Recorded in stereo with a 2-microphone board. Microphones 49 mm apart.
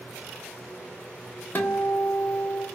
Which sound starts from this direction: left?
A guitar, at 1.6 s.